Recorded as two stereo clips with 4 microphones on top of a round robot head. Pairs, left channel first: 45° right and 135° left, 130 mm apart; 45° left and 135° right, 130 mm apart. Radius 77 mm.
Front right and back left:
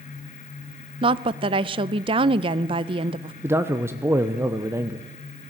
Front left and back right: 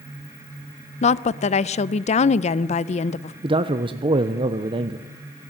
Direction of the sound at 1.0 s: 85° left.